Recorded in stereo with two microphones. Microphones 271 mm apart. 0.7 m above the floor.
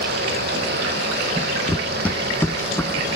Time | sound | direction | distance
1.7 | running footsteps | centre (ahead or behind) | 1.1 m